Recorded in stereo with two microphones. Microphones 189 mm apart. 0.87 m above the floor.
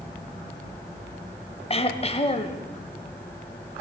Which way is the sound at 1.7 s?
30° left (ahead or behind).